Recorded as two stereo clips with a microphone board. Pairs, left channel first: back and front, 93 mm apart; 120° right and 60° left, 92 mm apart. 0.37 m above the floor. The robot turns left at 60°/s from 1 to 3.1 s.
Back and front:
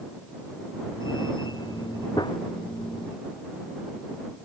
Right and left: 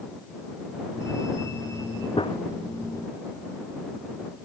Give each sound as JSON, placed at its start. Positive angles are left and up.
{"t": 2.2, "sound": "a gunshot", "azimuth_deg": -140}